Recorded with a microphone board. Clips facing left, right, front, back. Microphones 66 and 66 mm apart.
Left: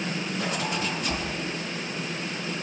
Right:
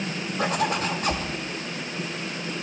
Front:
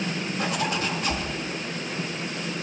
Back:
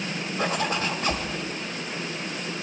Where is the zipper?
130° right, 1.6 m.